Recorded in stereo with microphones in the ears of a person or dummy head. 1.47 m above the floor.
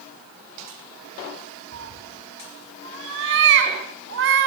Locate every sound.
1.7 s a cat meowing: 65° right (ahead or behind), 4 m